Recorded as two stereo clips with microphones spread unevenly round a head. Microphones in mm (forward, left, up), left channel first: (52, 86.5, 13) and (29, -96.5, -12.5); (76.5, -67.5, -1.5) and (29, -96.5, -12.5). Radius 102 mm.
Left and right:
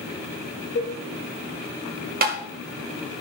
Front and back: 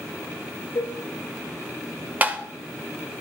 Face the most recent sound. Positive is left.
turn(degrees=-90)